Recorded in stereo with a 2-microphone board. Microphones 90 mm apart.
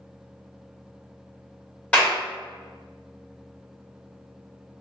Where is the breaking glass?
I don't hear breaking glass.